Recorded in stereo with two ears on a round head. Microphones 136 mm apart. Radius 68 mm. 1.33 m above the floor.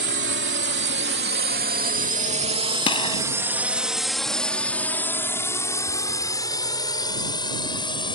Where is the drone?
75° right (ahead or behind); by 8.2 s 30° left (ahead or behind).